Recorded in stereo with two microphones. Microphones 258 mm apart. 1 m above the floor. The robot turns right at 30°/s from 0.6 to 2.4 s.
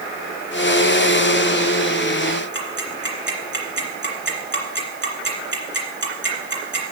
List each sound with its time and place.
2.5 s ticking: 45° right (ahead or behind), 2.5 m